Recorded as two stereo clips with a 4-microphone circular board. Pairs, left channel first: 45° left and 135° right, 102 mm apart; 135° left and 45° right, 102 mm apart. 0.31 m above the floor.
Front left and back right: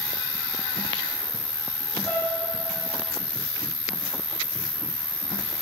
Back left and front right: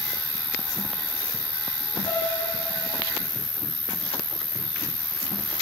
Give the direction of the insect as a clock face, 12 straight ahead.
11 o'clock.